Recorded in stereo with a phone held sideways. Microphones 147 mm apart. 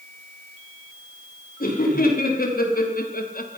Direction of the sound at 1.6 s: 90° left.